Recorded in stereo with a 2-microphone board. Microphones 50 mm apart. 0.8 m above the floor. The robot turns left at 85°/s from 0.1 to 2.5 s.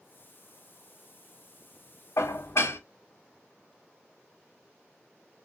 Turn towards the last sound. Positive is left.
turn(degrees=65)  # may be behind; listen again after turning